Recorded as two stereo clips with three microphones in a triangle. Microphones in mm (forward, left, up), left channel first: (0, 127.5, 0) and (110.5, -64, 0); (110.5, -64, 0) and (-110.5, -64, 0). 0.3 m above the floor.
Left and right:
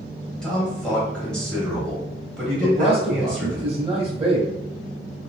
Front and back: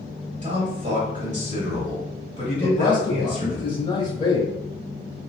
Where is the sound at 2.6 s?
40° right, 1.0 m.